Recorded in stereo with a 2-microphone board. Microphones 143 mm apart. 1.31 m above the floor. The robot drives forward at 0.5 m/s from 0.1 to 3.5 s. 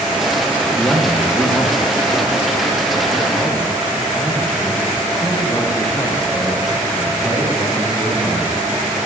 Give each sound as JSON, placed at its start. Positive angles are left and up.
{"t": 0.8, "sound": "a man speaking", "side_deg": 10, "distance_m": 1.4}